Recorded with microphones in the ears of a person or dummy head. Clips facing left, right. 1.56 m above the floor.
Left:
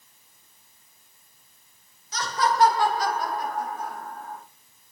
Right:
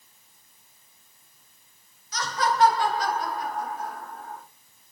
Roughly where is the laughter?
Left.